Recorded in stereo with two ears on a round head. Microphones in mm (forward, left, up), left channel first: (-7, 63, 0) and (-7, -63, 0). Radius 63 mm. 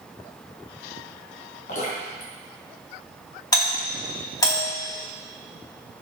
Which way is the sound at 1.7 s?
60° left (ahead or behind).